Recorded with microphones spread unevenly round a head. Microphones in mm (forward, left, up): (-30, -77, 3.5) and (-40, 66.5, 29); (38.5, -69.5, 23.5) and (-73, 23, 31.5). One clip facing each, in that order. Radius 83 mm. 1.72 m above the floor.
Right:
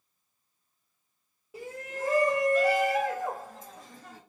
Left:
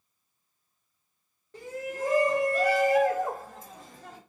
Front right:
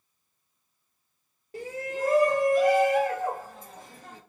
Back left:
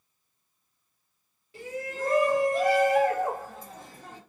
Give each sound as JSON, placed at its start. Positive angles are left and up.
{"t": 1.5, "sound": "a shout", "azimuth_deg": 5, "distance_m": 0.7}